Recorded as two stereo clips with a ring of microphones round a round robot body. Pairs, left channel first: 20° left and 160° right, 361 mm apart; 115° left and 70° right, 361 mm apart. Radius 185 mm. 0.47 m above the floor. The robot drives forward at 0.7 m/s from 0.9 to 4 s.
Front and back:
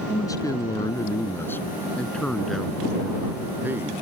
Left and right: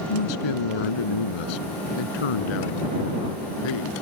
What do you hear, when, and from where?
0.1 s a man speaking: 105° left; by 3.9 s 120° left